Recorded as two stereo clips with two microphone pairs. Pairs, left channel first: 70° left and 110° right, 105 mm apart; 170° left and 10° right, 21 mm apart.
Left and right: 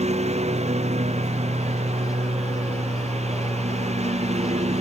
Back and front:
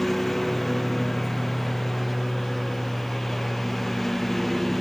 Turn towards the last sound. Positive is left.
turn(degrees=-110)